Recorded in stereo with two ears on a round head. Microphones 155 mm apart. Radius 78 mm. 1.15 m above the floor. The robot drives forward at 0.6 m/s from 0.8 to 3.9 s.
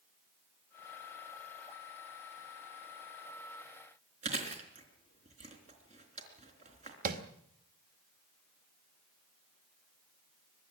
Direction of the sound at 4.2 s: 45° right (ahead or behind).